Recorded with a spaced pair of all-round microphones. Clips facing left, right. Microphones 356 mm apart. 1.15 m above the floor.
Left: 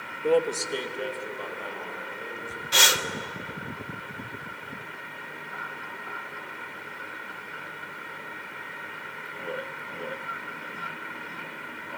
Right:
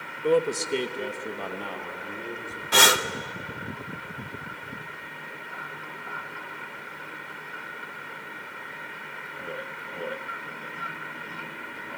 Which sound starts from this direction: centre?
A man speaking, at 0.2 s.